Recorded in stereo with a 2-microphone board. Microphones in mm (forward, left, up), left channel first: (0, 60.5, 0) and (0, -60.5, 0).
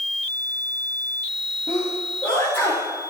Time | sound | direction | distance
1.7 | a sneeze | 20° left (ahead or behind) | 9 m